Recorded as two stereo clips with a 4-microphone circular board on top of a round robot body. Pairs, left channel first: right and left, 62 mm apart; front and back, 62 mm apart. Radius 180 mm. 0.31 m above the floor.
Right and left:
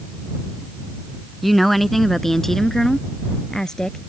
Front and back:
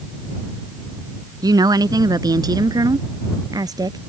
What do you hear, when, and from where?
1.4 s a woman speaking: straight behind; by 4.0 s 170° right